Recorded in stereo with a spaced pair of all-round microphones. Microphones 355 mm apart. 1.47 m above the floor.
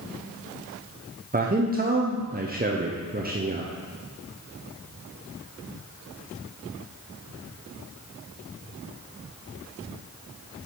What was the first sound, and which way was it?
A man speaking, 25° right (ahead or behind).